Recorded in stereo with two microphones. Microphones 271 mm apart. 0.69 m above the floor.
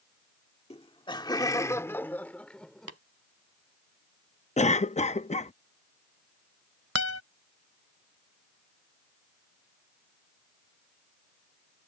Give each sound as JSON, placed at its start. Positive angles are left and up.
{"t": 0.7, "sound": "laughter", "side_deg": 20}
{"t": 2.9, "sound": "tapping", "side_deg": -60}
{"t": 4.6, "sound": "a cough", "side_deg": 25}
{"t": 7.0, "sound": "a guitar", "side_deg": -60}